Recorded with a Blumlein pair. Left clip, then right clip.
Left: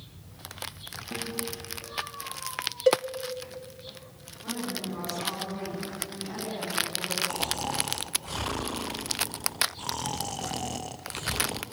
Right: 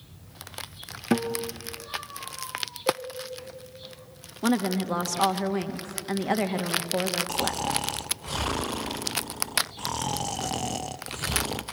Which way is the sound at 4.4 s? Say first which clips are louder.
Right 8 dB; 50° right.